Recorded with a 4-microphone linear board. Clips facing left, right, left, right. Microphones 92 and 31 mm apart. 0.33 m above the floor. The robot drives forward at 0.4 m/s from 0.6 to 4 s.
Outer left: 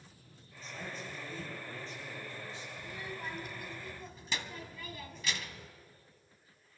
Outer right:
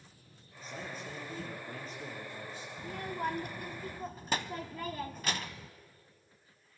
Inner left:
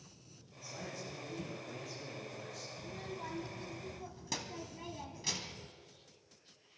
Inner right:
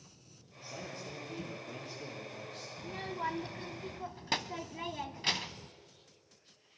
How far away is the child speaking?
About 1.0 m.